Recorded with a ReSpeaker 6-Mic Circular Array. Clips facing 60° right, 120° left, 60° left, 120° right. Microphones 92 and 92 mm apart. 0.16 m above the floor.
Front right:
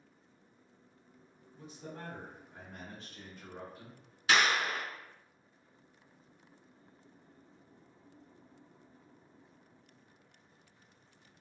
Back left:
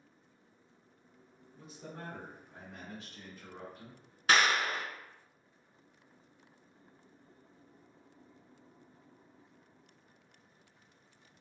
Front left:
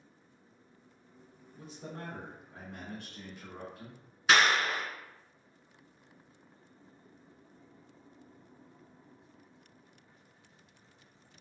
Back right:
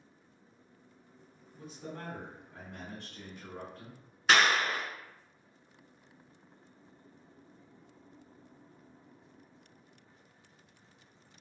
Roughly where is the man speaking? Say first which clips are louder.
Front right 1 dB, back right 1 dB; left.